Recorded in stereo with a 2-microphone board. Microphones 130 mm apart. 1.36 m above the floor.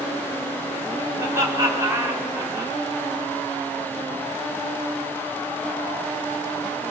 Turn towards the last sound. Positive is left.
turn(degrees=-25)  # may be behind; listen again after turning